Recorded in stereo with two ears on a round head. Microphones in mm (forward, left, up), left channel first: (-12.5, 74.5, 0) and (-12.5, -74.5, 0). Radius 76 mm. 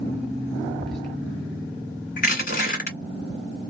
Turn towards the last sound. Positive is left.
turn(degrees=55)  # may be behind; listen again after turning